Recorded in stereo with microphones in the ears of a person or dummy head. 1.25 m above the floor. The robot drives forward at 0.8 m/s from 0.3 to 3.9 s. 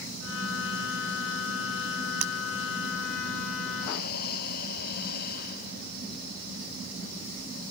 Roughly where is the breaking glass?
Right.